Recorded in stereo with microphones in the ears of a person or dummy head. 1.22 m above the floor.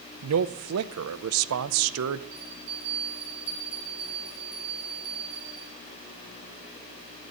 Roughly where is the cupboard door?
I don't hear a cupboard door.